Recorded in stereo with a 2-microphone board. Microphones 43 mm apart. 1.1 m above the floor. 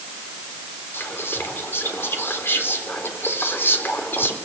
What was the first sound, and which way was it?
Whispering, 65° left (ahead or behind).